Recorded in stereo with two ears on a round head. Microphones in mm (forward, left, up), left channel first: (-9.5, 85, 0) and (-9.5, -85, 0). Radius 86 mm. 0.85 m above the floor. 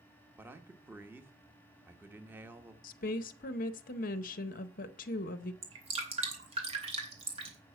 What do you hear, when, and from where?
0.4 s a man speaking: 10° right (ahead or behind), 1.0 m
2.8 s a woman speaking: 45° left (ahead or behind), 0.7 m
5.6 s dripping: 35° right (ahead or behind), 2.5 m